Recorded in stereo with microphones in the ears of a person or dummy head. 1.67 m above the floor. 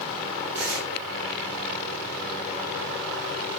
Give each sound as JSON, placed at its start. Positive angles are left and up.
{"t": 0.6, "sound": "tearing paper", "side_deg": -60, "distance_m": 7.5}